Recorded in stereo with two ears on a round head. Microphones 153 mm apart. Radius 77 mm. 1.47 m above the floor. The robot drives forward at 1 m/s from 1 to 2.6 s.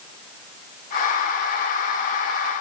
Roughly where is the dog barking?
I don't hear a dog barking.